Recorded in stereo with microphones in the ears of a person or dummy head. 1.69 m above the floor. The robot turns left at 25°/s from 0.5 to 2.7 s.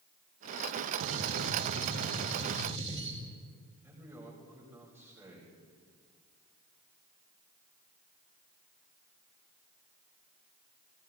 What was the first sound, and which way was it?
A gunshot, 100° right.